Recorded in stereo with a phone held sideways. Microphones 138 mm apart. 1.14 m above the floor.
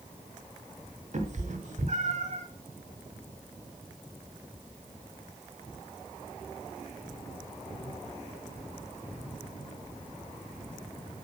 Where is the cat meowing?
55° right (ahead or behind), 1.2 m; by 2.5 s 50° right (ahead or behind), 1.5 m.